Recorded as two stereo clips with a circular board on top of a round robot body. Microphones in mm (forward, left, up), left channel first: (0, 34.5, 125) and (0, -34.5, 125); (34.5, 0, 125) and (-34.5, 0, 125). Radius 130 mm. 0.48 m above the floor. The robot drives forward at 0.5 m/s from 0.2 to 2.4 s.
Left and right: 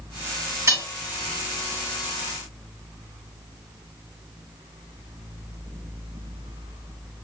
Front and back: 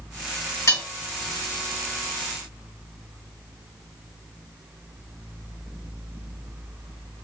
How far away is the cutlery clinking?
About 1.7 m.